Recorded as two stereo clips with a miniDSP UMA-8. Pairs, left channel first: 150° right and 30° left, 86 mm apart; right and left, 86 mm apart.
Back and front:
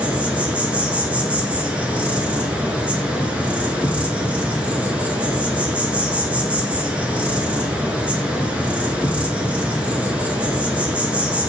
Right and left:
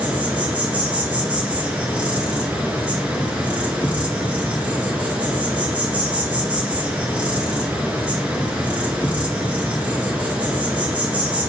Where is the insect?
70° left, 1.0 m.